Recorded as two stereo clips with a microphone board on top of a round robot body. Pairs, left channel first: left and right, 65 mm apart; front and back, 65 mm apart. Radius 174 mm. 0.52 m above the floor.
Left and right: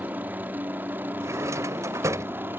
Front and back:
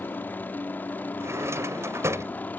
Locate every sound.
0.0 s a helicopter: 45° right; by 2.6 s 50° right
1.2 s a drawer: 135° right